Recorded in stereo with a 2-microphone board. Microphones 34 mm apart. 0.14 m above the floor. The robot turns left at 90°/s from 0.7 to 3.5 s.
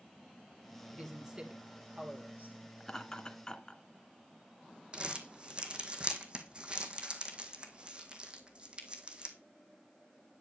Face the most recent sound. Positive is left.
turn(degrees=-30)  # may be behind; listen again after turning